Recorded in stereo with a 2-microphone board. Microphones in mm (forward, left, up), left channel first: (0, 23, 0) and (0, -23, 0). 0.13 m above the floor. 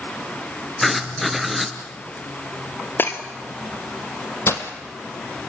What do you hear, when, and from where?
0.8 s writing: centre (ahead or behind), 1.9 m
3.0 s breaking glass: 55° left (ahead or behind), 1.9 m
4.5 s breaking glass: 60° left (ahead or behind), 1.9 m